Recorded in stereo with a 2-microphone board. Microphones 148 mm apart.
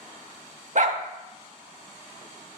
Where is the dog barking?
60° right (ahead or behind), 0.7 m.